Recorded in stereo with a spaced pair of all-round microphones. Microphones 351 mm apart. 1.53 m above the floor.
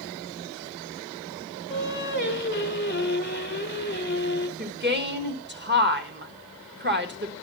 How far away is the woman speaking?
About 1.6 m.